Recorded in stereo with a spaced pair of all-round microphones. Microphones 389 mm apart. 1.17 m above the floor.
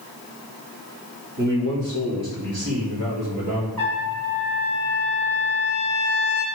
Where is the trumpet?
65° right (ahead or behind), 2.5 m.